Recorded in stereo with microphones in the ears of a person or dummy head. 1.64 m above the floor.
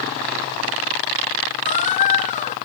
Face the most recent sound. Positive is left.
turn(degrees=40)  # may be behind; listen again after turning